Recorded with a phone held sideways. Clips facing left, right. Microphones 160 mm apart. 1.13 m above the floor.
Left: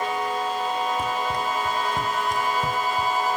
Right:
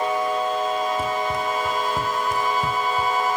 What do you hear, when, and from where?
1.0 s running footsteps: 5° right (ahead or behind); by 3.2 s centre (ahead or behind)